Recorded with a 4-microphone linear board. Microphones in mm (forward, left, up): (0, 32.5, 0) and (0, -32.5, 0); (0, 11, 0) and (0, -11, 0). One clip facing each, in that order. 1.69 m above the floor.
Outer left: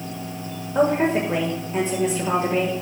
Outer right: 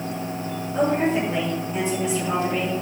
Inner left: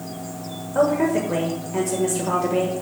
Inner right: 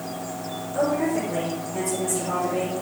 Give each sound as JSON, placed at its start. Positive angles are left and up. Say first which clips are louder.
{"t": 0.8, "sound": "a woman speaking", "louder": "outer left 2 dB, inner left 4 dB", "side_deg": 40, "distance_m": 1.6}